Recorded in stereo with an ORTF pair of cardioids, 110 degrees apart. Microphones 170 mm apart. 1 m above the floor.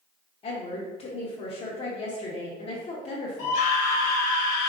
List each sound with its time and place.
0.4 s a woman speaking: 35° left, 0.8 m
3.4 s a scream: 55° left, 1.2 m